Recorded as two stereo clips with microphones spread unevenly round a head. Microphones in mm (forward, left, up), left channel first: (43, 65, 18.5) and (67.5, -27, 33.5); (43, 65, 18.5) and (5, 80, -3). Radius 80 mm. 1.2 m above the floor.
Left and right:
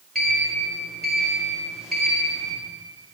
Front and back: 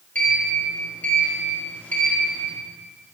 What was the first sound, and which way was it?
A sliding door, 15° left.